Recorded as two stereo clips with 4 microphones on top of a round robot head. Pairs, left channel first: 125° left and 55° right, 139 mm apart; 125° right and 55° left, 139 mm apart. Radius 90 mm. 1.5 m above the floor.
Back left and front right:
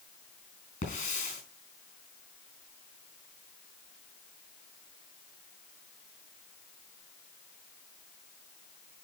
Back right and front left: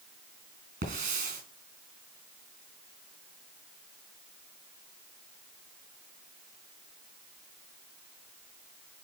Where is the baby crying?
No baby crying in this recording.